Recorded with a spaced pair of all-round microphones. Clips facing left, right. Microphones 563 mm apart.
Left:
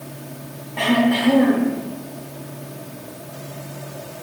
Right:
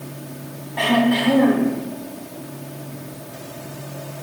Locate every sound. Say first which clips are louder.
0.8 s throat clearing: even; 50° left (ahead or behind), 3.5 m